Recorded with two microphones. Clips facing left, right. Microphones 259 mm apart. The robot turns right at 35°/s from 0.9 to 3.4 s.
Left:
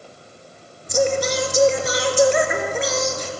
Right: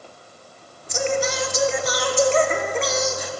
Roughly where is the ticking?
No ticking in this recording.